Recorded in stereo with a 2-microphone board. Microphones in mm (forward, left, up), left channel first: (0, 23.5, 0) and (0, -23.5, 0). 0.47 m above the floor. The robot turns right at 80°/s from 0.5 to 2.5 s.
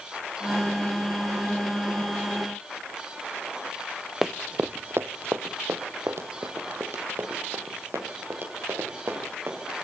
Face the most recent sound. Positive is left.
turn(degrees=-60)  # may be behind; listen again after turning